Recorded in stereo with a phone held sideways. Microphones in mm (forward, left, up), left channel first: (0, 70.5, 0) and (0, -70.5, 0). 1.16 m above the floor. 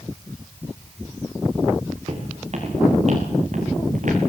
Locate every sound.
2.1 s footsteps: 50° right (ahead or behind), 5.5 m; by 4.3 s 70° right (ahead or behind), 5 m